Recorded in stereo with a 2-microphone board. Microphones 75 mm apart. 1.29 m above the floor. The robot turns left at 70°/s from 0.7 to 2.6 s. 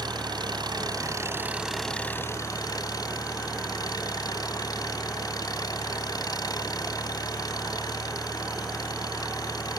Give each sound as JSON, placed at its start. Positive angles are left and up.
{"t": 0.0, "sound": "an engine running", "azimuth_deg": -105}